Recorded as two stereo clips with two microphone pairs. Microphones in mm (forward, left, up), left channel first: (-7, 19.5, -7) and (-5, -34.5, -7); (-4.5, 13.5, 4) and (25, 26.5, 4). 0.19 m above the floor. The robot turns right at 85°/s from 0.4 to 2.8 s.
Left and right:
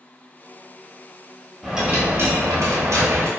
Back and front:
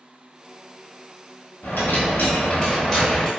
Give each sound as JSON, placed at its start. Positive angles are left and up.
{"t": 1.6, "sound": "a dropped coin", "azimuth_deg": -175, "distance_m": 0.9}